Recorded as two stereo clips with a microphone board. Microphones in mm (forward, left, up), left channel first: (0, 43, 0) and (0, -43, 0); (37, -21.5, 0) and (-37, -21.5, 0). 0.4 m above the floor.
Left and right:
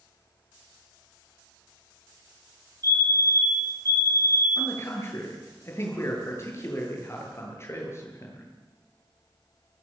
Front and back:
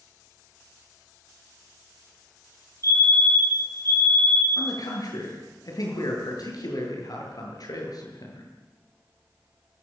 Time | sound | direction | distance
2.8 | a fire alarm | 130° right | 6.5 m
4.6 | a man speaking | 30° left | 8 m